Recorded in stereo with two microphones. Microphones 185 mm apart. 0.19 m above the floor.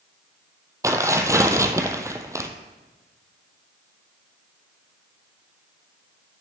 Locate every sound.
0.8 s tearing paper: 15° right (ahead or behind), 0.8 m